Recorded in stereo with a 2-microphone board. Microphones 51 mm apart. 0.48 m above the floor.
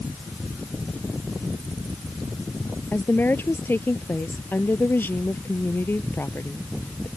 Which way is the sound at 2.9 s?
45° left (ahead or behind).